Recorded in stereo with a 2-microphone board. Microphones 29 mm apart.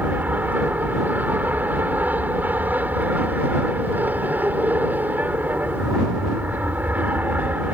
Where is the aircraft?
70° right (ahead or behind).